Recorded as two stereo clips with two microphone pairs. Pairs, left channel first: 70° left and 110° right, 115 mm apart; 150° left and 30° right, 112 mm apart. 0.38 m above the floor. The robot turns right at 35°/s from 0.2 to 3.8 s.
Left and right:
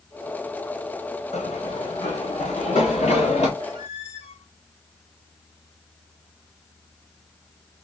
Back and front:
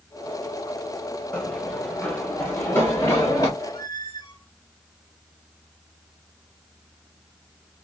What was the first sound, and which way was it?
Running footsteps, 70° left.